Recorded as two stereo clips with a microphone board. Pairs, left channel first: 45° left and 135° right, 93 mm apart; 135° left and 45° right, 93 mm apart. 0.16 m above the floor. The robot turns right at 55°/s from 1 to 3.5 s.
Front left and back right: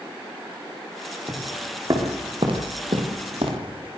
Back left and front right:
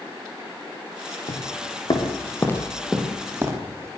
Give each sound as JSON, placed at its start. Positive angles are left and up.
{"t": 1.3, "sound": "footsteps", "azimuth_deg": 140, "distance_m": 7.5}